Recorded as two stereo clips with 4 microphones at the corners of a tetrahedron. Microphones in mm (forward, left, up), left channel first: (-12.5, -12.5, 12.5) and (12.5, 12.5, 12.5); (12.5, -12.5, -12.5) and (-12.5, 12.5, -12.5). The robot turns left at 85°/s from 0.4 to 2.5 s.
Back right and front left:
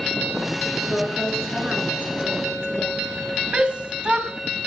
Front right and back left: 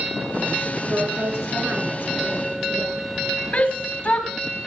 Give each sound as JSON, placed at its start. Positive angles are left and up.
{"t": 0.8, "sound": "a woman speaking", "azimuth_deg": 180, "distance_m": 7.0}
{"t": 3.5, "sound": "a shout", "azimuth_deg": -5, "distance_m": 2.0}